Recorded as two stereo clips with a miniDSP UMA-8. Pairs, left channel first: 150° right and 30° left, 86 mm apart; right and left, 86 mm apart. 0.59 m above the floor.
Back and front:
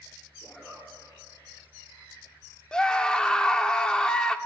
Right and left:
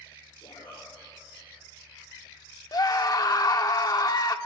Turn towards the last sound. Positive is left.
turn(degrees=-75)